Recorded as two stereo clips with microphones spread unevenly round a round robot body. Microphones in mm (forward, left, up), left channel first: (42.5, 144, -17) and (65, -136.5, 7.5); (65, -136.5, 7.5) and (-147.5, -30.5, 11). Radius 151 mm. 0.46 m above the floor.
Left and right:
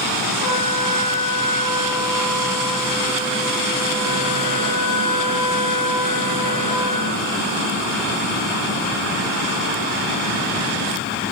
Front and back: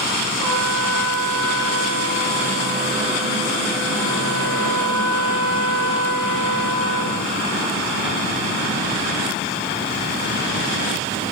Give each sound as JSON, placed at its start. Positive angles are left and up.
{"t": 0.4, "sound": "a trumpet", "azimuth_deg": 105, "distance_m": 6.5}